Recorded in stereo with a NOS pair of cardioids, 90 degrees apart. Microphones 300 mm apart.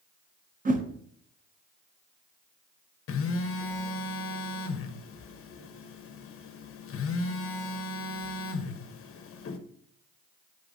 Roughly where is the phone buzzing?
Ahead left.